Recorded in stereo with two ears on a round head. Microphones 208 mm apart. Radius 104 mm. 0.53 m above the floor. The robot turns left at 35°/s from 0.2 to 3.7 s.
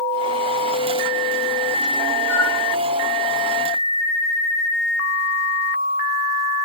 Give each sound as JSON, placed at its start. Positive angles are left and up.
{"t": 2.3, "sound": "a flute", "side_deg": -40, "distance_m": 7.0}